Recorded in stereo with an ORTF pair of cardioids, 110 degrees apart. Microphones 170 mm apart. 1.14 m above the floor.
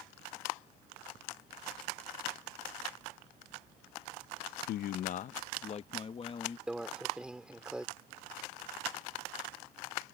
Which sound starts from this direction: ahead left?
A man speaking, at 4.7 s.